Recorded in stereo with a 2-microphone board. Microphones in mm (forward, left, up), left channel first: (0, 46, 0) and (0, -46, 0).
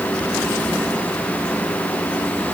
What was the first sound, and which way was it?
Only background noise.